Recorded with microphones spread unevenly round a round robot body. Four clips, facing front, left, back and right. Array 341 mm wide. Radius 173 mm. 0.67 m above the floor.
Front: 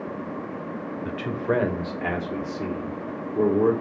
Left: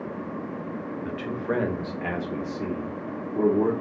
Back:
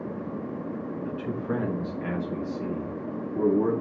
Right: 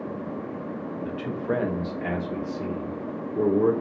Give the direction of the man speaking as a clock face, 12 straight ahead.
12 o'clock.